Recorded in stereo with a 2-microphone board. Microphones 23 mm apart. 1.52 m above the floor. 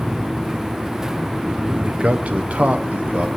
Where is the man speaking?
70° right (ahead or behind), 0.6 m.